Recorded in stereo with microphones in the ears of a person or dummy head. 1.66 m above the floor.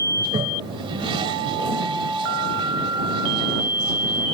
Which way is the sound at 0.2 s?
25° right (ahead or behind).